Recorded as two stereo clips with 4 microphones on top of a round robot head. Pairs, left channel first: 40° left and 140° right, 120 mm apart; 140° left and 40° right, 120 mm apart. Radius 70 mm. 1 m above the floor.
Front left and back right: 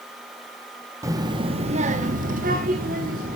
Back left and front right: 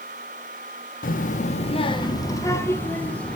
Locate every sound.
1.0 s a child speaking: 155° left, 1.0 m; by 3.4 s 140° right, 1.9 m